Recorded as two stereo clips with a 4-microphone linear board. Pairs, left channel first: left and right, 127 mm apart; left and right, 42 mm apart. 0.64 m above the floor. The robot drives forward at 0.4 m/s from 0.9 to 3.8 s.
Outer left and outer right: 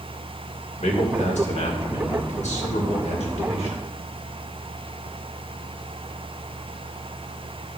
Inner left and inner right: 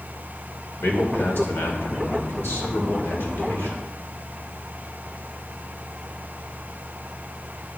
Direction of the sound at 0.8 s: 65° left (ahead or behind).